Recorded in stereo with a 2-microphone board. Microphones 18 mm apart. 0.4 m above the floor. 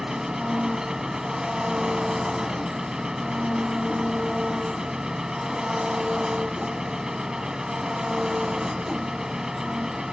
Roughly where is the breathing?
I don't hear breathing.